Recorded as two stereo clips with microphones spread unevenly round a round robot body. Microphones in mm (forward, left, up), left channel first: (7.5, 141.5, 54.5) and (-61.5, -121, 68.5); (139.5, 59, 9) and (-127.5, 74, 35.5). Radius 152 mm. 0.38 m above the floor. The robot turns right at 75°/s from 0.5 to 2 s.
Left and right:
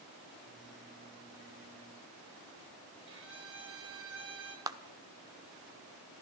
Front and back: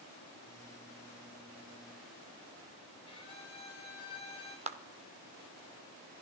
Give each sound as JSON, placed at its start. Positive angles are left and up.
{"t": 3.1, "sound": "a violin", "azimuth_deg": -70, "distance_m": 2.5}
{"t": 4.7, "sound": "a clap", "azimuth_deg": -165, "distance_m": 0.8}